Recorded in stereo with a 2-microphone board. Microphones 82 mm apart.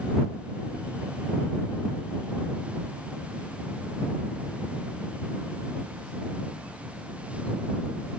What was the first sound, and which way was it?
Only background noise.